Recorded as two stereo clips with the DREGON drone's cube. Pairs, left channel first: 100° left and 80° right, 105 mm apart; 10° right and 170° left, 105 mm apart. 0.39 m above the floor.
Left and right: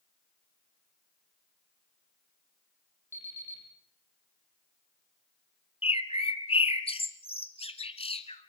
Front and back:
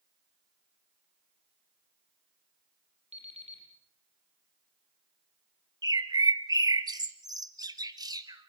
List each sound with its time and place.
3.1 s an alarm clock: 170° left, 6 m
5.8 s a bird: 120° left, 1.3 m